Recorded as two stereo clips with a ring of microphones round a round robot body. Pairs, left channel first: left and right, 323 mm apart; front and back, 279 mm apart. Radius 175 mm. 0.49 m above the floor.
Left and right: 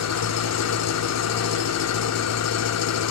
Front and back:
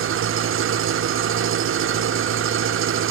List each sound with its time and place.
0.0 s an engine running: 135° left, 0.7 m